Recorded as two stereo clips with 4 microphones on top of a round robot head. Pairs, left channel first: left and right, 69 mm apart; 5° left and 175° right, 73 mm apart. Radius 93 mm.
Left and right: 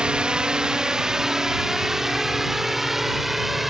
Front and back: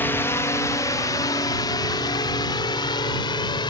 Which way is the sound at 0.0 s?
25° right.